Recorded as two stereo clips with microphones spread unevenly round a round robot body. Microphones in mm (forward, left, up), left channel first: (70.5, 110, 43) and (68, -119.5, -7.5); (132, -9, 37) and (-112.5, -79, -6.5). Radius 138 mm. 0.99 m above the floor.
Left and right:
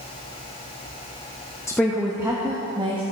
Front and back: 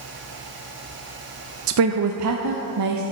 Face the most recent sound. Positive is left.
turn(degrees=-160)